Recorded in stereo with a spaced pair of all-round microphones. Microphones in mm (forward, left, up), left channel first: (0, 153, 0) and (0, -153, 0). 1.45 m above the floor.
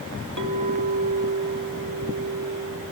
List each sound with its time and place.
0.4 s a clink: 70° right (ahead or behind), 2 m